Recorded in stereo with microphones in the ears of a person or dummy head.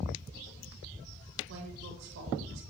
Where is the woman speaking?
70° right (ahead or behind), 9 m; by 2.6 s 65° right (ahead or behind), 8.5 m.